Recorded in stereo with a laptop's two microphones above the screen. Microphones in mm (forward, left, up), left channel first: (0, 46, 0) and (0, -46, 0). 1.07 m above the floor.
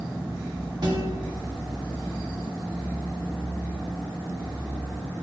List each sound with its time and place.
0.8 s a guitar: 55° right (ahead or behind), 2 m